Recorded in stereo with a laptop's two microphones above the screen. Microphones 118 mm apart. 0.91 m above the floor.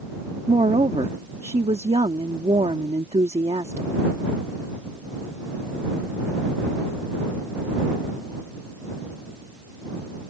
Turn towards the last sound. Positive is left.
turn(degrees=-60)  # may be behind; listen again after turning